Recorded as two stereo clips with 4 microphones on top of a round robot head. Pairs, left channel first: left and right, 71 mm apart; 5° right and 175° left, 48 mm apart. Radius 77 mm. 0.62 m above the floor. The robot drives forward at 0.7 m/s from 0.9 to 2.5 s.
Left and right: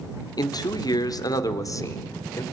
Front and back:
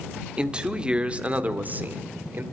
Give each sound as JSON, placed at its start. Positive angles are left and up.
{"t": 0.4, "sound": "a man speaking", "azimuth_deg": 110, "distance_m": 1.7}